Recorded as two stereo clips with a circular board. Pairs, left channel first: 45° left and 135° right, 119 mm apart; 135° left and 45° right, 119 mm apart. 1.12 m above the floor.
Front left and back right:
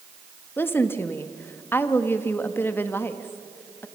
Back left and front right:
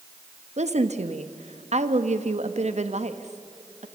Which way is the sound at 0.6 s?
25° right.